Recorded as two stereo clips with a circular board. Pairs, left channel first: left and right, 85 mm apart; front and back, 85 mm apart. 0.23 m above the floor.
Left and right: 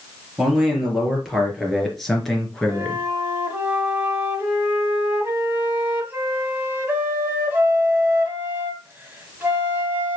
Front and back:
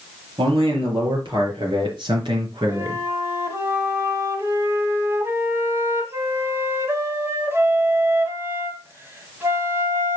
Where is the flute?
140° right, 1.8 m.